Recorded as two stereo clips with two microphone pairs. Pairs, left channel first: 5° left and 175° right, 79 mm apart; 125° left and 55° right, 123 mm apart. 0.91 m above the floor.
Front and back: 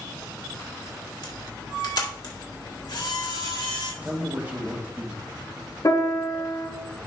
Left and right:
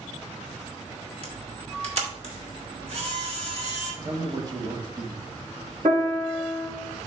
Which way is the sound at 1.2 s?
20° right.